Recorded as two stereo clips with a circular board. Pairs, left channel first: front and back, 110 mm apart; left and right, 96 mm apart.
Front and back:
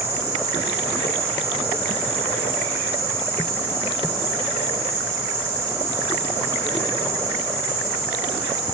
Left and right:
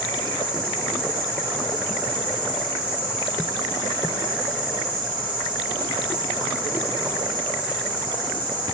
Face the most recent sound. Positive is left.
turn(degrees=110)